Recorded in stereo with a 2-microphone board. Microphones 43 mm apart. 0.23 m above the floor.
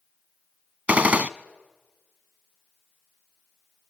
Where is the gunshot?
35° right (ahead or behind), 0.6 m.